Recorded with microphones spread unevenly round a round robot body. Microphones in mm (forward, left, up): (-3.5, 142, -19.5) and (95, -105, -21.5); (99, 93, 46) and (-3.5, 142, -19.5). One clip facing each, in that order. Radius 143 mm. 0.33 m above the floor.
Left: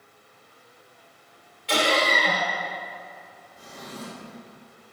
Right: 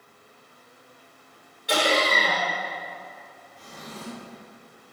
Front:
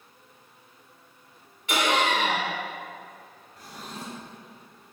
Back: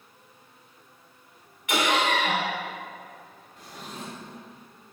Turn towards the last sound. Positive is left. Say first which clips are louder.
# left 2 dB, even
turn(degrees=30)